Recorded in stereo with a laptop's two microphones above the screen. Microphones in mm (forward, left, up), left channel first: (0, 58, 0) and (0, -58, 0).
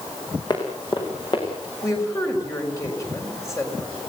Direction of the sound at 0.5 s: 40° left (ahead or behind).